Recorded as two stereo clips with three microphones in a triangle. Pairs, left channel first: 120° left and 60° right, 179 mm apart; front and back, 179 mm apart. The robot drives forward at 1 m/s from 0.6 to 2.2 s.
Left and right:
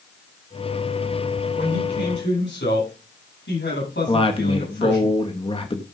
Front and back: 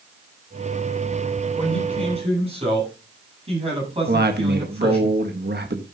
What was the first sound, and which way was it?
A man speaking, 120° left.